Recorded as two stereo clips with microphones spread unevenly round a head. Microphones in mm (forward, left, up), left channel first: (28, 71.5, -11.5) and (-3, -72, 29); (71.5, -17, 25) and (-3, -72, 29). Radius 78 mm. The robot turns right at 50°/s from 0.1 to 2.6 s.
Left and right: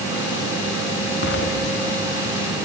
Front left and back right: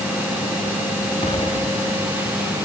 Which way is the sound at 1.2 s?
70° left.